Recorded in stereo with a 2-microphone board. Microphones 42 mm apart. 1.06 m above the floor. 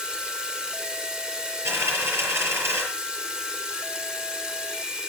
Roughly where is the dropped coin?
Right.